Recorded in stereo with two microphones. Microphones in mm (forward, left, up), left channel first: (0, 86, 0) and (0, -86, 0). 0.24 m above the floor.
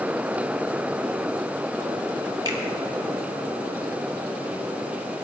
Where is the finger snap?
25° right (ahead or behind), 2 m.